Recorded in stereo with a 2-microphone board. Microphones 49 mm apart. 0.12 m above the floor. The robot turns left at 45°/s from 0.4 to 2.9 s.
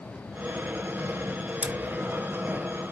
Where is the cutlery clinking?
20° right (ahead or behind), 0.8 m; by 1.7 s 25° right (ahead or behind), 0.8 m.